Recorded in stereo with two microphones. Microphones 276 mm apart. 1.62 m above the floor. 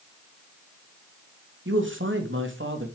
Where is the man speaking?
45° right (ahead or behind), 3 m.